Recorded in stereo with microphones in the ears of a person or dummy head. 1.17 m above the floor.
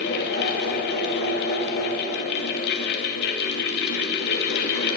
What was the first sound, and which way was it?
A fan, 60° left (ahead or behind).